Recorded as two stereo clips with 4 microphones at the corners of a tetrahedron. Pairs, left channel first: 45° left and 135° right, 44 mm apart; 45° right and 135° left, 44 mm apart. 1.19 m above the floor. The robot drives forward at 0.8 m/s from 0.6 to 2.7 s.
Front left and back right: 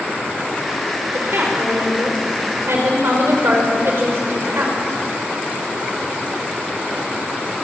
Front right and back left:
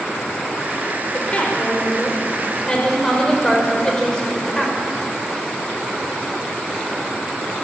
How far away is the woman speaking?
About 5.5 m.